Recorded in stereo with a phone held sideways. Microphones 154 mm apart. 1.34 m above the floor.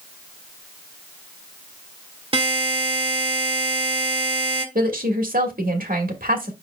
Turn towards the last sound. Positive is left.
turn(degrees=-65)  # may be behind; listen again after turning